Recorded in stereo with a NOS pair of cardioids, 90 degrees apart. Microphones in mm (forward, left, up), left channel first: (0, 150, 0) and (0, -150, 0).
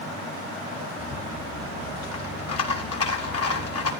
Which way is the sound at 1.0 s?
55° left.